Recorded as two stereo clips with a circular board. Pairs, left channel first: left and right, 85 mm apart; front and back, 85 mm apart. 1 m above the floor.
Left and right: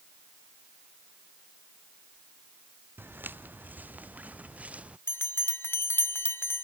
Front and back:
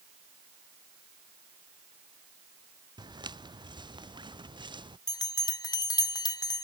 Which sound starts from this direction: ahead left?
A bell, at 5.1 s.